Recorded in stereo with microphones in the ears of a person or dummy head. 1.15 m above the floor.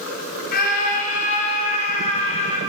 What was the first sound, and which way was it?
A scream, 50° left (ahead or behind).